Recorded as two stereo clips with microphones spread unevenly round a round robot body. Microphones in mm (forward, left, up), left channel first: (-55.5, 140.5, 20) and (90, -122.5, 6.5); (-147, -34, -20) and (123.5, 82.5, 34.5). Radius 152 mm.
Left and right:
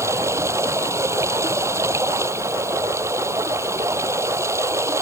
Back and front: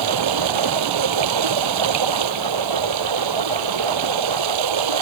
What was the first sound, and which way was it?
Running water, 20° left.